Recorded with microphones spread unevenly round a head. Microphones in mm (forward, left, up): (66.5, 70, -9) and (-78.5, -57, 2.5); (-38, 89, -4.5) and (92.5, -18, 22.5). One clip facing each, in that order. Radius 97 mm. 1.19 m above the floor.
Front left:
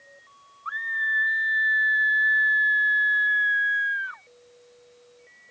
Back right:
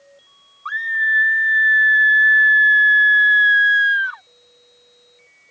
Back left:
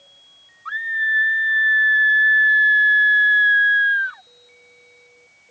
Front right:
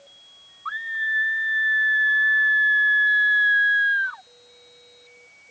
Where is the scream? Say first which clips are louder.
Back right 7 dB, back left 4 dB; 145° right.